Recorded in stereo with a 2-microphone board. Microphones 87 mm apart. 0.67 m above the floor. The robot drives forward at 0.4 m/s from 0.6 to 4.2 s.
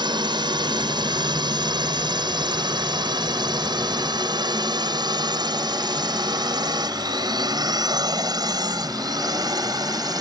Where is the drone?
55° right (ahead or behind); by 10.2 s 45° right (ahead or behind).